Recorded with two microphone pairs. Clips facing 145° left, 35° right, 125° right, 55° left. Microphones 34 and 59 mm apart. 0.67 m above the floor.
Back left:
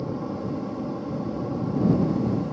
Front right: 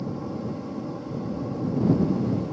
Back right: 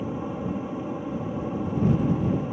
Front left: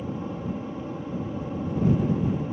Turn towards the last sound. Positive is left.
turn(degrees=-170)